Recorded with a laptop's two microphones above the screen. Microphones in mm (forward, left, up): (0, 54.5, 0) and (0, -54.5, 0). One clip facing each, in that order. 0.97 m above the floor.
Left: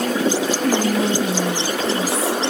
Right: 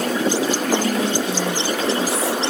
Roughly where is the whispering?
Left.